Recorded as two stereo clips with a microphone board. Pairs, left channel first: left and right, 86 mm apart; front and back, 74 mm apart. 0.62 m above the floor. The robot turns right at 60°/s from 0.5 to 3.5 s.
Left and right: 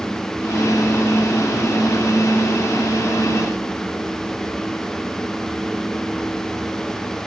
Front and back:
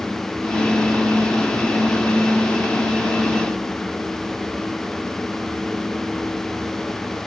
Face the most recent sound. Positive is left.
No sound to turn to.